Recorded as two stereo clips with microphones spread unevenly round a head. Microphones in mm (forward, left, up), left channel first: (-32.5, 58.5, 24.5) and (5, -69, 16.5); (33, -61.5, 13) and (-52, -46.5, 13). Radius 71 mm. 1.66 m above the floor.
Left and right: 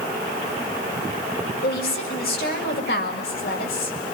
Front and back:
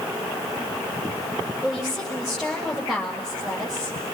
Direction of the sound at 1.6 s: 85° left.